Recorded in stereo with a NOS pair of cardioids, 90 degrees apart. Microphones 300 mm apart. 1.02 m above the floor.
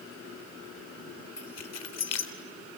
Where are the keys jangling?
55° left, 3 m.